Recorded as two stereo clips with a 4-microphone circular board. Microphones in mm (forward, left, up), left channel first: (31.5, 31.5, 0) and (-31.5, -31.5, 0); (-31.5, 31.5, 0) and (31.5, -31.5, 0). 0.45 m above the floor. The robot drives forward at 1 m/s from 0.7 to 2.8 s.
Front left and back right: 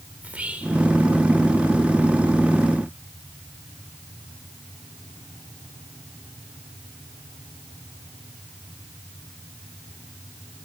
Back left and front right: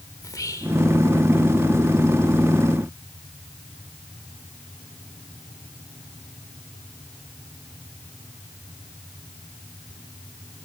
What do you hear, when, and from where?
0.2 s whispering: 155° left, 1.1 m; by 0.8 s 160° left, 1.2 m